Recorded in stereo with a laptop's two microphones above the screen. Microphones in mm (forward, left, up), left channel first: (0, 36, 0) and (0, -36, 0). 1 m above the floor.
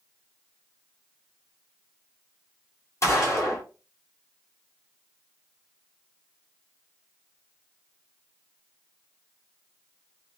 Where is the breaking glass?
I don't hear breaking glass.